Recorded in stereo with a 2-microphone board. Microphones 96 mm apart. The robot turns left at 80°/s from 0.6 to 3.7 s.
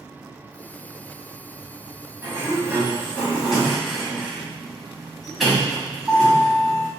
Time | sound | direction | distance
2.2 | a sliding door | 25° right (ahead or behind) | 1.7 m